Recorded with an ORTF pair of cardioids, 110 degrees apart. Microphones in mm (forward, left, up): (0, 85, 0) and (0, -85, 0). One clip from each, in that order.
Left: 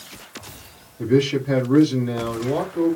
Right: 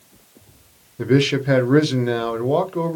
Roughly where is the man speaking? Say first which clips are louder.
Right 1 dB; ahead right.